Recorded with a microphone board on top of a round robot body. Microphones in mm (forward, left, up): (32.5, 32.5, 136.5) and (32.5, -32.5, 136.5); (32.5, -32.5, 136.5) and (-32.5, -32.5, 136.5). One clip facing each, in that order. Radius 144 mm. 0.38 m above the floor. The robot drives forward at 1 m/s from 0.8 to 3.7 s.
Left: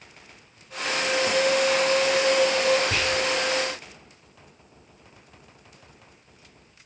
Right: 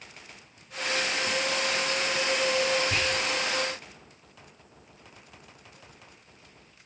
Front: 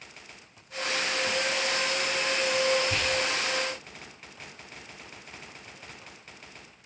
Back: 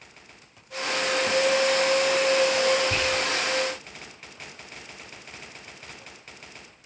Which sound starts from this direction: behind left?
Whispering, at 2.9 s.